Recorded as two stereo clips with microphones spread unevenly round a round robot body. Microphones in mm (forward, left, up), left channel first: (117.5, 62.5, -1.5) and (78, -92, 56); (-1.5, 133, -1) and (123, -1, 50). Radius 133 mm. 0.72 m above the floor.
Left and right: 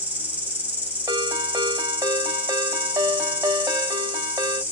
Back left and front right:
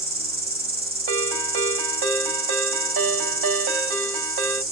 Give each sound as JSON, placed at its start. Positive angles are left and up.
{"t": 0.0, "sound": "an insect", "azimuth_deg": -15, "distance_m": 2.5}
{"t": 1.1, "sound": "a ringtone", "azimuth_deg": -35, "distance_m": 2.5}